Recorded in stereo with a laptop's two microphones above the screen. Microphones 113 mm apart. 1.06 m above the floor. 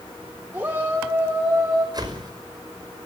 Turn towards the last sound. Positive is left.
turn(degrees=-40)  # may be behind; listen again after turning